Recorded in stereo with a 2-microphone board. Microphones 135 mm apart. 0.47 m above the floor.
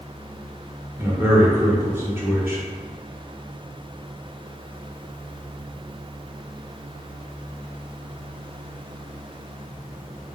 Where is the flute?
I don't hear a flute.